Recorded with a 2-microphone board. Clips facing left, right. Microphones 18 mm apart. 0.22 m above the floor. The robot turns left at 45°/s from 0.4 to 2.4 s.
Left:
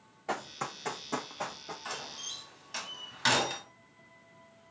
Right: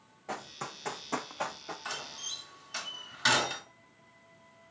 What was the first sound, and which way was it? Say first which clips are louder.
Running footsteps: left 4 dB; 25° left (ahead or behind).